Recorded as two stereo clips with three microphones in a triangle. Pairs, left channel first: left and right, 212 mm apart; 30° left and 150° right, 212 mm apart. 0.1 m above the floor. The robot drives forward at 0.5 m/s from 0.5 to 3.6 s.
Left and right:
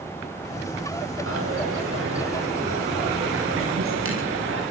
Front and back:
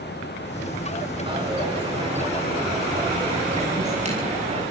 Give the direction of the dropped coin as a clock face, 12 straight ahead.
3 o'clock.